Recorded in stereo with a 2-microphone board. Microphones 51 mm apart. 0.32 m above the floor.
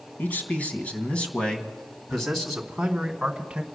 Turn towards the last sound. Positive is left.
turn(degrees=-20)  # may be behind; listen again after turning